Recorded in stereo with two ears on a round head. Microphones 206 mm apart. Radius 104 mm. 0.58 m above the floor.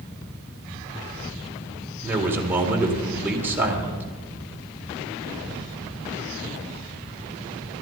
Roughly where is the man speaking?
Centre.